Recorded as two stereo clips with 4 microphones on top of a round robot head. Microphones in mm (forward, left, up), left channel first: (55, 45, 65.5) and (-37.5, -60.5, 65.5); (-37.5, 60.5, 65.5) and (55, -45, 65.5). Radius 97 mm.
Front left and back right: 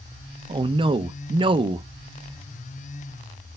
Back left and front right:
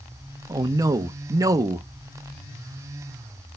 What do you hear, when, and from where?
0.5 s a man speaking: 105° right, 0.7 m